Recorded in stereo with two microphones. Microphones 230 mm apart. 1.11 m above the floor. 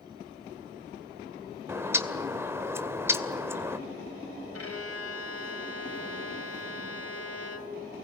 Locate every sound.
1.7 s a bird: 10° right (ahead or behind), 2 m
4.5 s a violin: 85° left, 3.5 m